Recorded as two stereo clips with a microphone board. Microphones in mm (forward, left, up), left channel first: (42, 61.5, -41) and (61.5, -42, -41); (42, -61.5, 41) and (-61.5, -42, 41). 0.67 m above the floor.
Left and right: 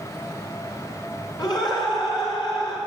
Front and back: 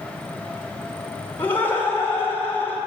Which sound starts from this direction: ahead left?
Laughter, at 1.4 s.